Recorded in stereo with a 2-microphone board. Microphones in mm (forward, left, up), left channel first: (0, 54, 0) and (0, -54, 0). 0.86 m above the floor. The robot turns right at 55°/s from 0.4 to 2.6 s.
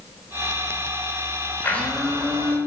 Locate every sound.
1.6 s a blender: 160° left, 3 m; by 2.6 s 145° right, 3 m